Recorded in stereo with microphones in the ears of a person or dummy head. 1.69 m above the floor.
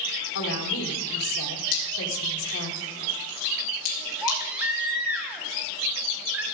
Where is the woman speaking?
75° left (ahead or behind), 2.5 m.